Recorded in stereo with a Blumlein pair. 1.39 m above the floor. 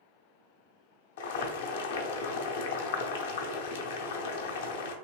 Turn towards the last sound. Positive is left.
turn(degrees=55)